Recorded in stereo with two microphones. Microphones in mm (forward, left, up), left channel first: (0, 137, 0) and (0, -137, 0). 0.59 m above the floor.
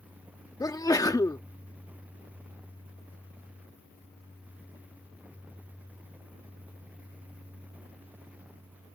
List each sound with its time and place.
0.6 s a sneeze: 15° left (ahead or behind)